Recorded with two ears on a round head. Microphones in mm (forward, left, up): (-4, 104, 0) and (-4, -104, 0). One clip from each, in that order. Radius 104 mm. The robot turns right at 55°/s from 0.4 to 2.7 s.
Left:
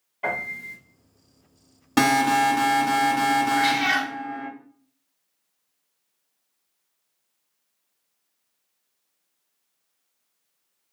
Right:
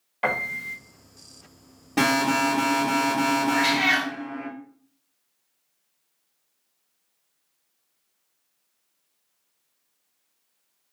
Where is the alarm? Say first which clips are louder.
Left 3 dB; 45° left, 1.4 m; by 4.5 s 90° left, 1.4 m.